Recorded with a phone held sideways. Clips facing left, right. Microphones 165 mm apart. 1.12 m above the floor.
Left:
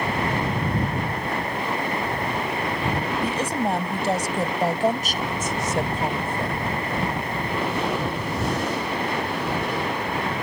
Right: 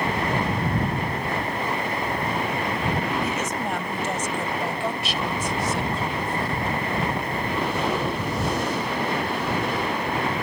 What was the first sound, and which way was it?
A woman speaking, 30° left (ahead or behind).